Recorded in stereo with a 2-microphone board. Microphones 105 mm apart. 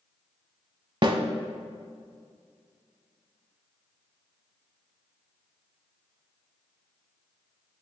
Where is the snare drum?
50° right (ahead or behind), 0.8 m.